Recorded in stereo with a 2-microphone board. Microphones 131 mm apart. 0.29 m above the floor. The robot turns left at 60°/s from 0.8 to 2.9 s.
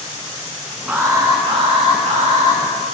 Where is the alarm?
15° right, 4.5 m; by 2.6 s 120° right, 4.5 m.